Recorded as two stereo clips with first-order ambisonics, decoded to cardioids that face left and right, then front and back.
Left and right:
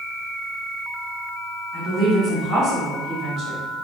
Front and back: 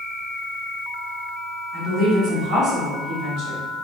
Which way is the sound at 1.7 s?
145° right.